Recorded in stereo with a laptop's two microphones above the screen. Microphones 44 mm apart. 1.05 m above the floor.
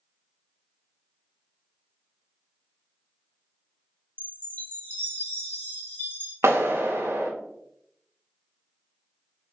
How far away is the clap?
About 0.5 m.